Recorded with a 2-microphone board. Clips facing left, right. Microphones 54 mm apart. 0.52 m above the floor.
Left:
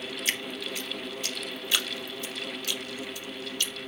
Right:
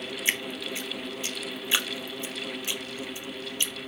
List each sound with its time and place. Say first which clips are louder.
0.2 s dripping: right 3 dB; 25° right (ahead or behind), 1.5 m